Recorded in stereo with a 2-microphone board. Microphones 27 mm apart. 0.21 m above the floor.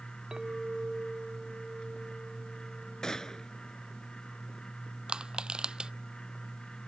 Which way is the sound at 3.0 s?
25° left (ahead or behind).